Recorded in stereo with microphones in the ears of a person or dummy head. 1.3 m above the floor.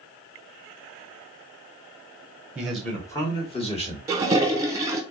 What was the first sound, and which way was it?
A man speaking, 10° right (ahead or behind).